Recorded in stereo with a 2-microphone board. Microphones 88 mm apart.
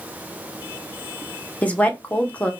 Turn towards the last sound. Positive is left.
turn(degrees=15)  # may be behind; listen again after turning